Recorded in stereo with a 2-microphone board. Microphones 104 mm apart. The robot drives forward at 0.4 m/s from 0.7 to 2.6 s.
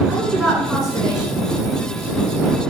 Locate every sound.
0.1 s a woman speaking: centre (ahead or behind), 1.4 m